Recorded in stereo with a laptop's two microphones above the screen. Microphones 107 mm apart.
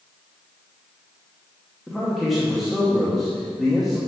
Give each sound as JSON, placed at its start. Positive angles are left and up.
{"t": 1.9, "sound": "a man speaking", "side_deg": 0, "distance_m": 0.9}